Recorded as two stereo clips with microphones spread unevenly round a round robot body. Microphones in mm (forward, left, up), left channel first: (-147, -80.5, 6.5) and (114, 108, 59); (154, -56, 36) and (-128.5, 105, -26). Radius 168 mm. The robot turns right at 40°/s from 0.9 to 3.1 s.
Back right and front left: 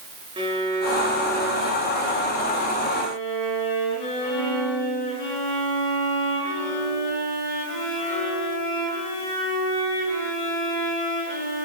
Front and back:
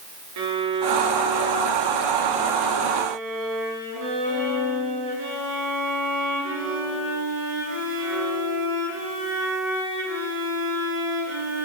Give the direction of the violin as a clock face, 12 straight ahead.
8 o'clock.